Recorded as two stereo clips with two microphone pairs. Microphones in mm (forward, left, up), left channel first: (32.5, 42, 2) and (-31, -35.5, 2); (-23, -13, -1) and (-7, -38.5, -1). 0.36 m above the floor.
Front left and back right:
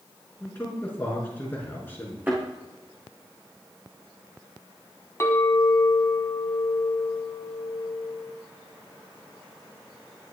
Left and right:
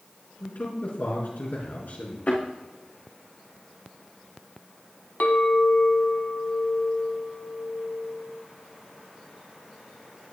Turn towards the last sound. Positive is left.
turn(degrees=110)